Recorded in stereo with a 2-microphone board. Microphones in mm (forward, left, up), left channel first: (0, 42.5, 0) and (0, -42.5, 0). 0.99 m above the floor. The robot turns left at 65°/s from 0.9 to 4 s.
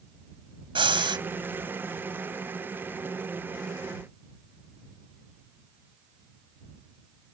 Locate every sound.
0.8 s breathing: 80° right; by 1.2 s 60° right (ahead or behind)